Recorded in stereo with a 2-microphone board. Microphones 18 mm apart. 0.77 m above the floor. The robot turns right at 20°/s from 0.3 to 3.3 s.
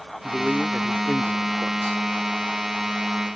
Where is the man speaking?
Straight behind; by 2.0 s 145° right.